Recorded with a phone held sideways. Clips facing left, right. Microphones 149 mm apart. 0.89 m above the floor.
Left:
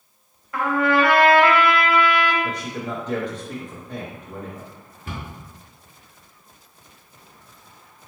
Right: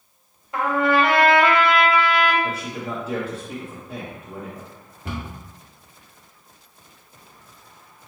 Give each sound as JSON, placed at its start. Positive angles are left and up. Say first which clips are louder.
{"t": 0.5, "sound": "a trumpet", "louder": "even", "side_deg": -25, "distance_m": 1.0}
{"t": 2.4, "sound": "a man speaking", "louder": "even", "side_deg": -5, "distance_m": 0.6}
{"t": 5.0, "sound": "a cupboard door", "louder": "right 3 dB", "side_deg": -70, "distance_m": 1.1}